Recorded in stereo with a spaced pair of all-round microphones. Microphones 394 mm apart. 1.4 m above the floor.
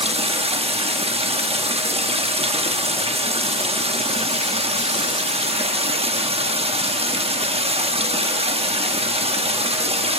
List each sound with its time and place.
0.0 s running water: 15° right (ahead or behind), 1.1 m